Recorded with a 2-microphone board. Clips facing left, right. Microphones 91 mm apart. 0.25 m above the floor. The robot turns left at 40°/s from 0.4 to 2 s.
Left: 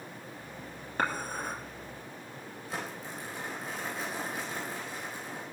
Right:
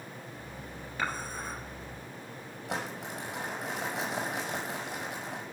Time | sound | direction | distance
1.0 | dishes clattering | 50° left (ahead or behind) | 3 m
2.7 | crumpling | 80° right | 6.5 m